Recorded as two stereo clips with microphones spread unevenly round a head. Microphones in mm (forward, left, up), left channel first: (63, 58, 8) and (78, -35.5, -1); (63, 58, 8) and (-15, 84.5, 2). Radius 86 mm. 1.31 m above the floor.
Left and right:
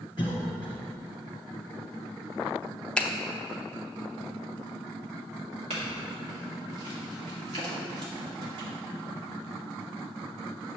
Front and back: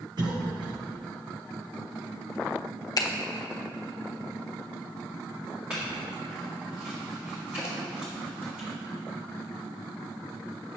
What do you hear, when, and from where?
0.2 s a cough: 160° left, 1.1 m
3.0 s a finger snap: 20° left, 0.7 m
5.7 s a clink: 115° right, 1.7 m